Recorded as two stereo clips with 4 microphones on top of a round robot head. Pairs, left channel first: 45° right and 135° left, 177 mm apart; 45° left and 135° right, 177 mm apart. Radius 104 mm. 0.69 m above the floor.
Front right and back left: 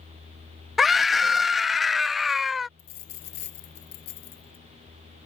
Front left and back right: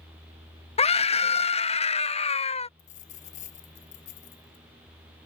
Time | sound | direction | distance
0.8 | a scream | 45° left | ?
2.8 | a dropped coin | 10° right | ?